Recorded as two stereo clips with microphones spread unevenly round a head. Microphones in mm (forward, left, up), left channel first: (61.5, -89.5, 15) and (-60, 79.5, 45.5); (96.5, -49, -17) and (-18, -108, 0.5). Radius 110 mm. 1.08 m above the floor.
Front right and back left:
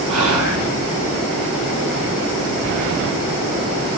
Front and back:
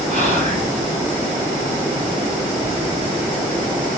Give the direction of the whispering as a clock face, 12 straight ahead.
7 o'clock.